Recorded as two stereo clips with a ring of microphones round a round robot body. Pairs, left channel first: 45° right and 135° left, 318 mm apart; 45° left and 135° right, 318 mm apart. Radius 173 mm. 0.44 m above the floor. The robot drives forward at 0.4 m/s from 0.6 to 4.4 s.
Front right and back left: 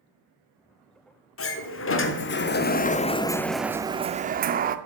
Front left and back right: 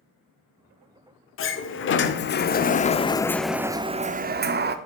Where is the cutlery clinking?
I don't hear cutlery clinking.